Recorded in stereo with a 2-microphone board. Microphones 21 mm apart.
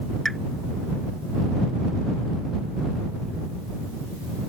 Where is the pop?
15° left (ahead or behind).